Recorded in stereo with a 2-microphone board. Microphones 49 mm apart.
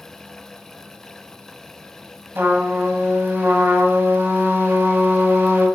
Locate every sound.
2.4 s a trumpet: 45° right (ahead or behind), 1.8 m